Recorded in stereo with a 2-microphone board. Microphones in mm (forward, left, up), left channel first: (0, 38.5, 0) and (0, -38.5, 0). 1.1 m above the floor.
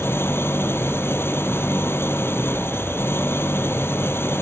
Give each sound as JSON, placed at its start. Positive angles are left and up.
{"t": 0.0, "sound": "an engine running", "side_deg": 35}